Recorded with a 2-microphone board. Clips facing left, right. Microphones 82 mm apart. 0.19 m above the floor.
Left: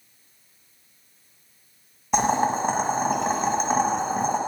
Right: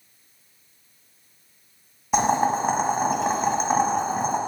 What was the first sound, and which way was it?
Boiling, 5° right (ahead or behind).